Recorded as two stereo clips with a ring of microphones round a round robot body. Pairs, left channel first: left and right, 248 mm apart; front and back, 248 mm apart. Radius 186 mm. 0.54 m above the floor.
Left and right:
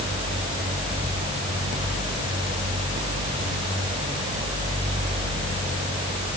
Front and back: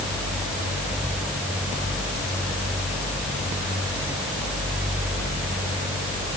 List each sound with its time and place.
Only background noise.